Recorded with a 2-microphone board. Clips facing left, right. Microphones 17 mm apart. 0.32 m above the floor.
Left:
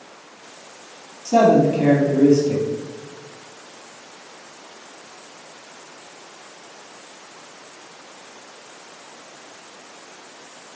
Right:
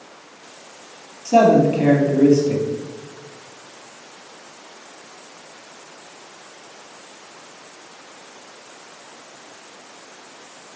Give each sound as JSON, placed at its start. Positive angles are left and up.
{"t": 1.2, "sound": "a man speaking", "side_deg": -35, "distance_m": 2.5}